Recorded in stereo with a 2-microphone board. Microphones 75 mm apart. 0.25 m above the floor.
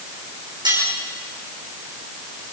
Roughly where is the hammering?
No hammering in this recording.